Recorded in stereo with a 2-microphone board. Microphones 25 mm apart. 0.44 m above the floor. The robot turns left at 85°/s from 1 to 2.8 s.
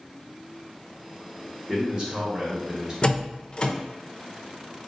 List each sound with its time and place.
1.7 s a man speaking: 40° right, 1.5 m; by 2.9 s 135° right, 1.5 m
3.0 s a door slam: 35° left (ahead or behind), 0.7 m